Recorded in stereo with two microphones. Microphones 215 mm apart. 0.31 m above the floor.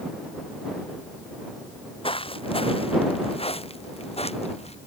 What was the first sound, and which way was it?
Footsteps, 25° left (ahead or behind).